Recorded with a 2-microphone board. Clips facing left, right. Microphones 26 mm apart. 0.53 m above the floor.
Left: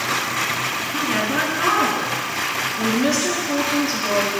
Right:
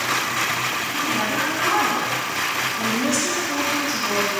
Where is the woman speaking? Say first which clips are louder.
Left 3 dB; 40° left (ahead or behind), 5.5 m.